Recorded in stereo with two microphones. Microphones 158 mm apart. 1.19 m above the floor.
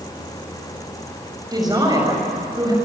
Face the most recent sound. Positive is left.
turn(degrees=-25)  # may be behind; listen again after turning